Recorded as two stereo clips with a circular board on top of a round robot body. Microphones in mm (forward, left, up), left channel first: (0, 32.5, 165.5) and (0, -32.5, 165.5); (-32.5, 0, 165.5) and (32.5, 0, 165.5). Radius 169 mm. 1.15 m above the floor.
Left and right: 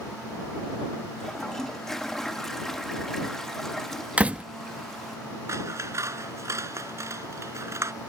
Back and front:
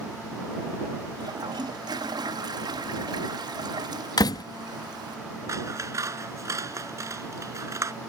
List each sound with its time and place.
1.2 s a toilet flushing: 5° left
4.2 s a door slam: 160° right
5.5 s scissors: 40° right